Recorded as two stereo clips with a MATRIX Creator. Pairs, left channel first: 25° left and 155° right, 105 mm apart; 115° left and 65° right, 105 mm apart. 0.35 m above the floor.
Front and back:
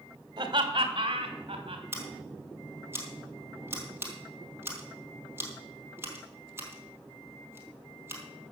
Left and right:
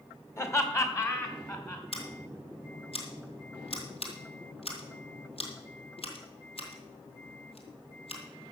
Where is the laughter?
170° left, 1.9 m.